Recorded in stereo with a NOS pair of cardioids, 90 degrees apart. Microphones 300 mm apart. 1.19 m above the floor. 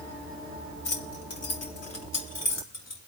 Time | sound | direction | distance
0.8 | keys jangling | 45° left | 2.5 m